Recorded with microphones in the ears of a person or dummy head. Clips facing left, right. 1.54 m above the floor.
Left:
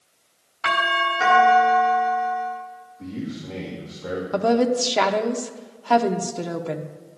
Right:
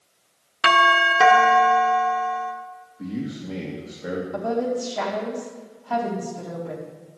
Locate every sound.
0.6 s a doorbell: 75° right (ahead or behind), 1.8 m
3.0 s a man speaking: 20° right (ahead or behind), 2.5 m
4.3 s a woman speaking: 85° left, 1.2 m